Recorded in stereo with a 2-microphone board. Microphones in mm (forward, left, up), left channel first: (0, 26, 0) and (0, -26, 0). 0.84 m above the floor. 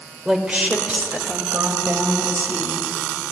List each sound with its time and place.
0.2 s a woman speaking: 20° right (ahead or behind), 3.5 m; by 2.8 s 45° right (ahead or behind), 5.5 m